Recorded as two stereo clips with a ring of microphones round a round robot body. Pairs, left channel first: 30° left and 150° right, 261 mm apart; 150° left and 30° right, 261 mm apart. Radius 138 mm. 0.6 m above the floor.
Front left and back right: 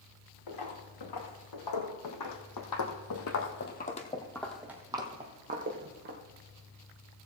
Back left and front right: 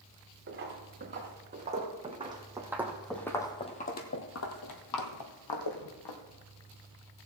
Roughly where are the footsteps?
Ahead left.